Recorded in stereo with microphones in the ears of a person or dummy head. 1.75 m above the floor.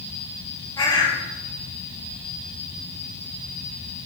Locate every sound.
0.8 s a bird: 20° left (ahead or behind), 1.7 m